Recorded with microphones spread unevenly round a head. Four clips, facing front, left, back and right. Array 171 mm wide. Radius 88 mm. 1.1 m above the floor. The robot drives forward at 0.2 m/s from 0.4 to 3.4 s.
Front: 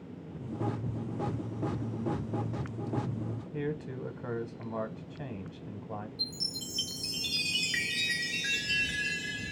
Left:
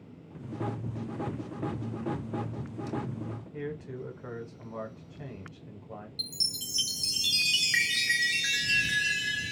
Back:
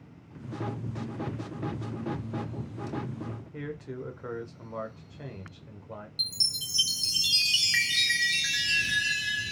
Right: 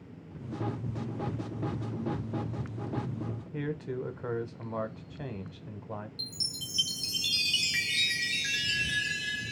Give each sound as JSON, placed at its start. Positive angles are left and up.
{"t": 3.5, "sound": "a man speaking", "azimuth_deg": -75, "distance_m": 0.7}
{"t": 6.2, "sound": "a chime", "azimuth_deg": 115, "distance_m": 0.5}